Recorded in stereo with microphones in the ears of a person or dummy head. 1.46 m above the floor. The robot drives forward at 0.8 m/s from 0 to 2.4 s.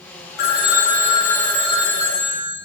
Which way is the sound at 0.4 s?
60° left (ahead or behind).